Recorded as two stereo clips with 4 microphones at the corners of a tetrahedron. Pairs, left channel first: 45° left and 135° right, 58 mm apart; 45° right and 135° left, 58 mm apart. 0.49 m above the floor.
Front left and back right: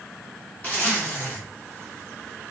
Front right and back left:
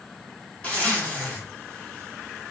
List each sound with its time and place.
0.6 s a zipper: 10° left, 1.4 m